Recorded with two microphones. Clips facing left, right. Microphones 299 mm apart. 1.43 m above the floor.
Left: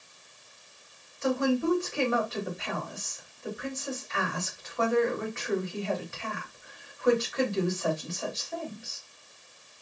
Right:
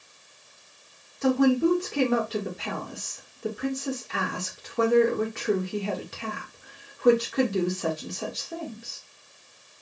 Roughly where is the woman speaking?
Right.